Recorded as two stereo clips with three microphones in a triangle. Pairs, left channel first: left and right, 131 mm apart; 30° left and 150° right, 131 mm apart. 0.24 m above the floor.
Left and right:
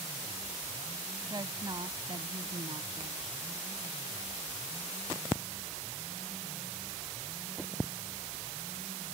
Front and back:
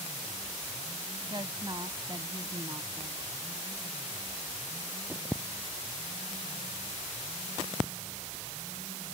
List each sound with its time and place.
1.3 s a woman speaking: 125° right; by 3.4 s 100° right